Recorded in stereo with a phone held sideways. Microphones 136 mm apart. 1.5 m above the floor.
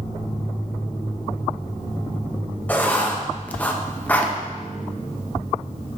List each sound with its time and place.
2.7 s writing: 10° left (ahead or behind), 0.8 m